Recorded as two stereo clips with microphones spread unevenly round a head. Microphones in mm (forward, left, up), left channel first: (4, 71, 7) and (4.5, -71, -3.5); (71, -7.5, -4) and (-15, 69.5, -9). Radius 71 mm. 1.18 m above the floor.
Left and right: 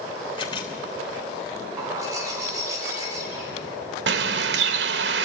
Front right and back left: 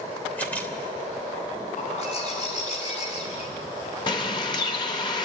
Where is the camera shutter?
35° left, 2.5 m.